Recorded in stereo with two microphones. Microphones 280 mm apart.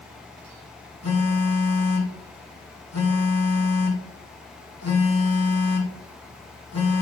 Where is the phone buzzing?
65° left (ahead or behind), 1.7 m.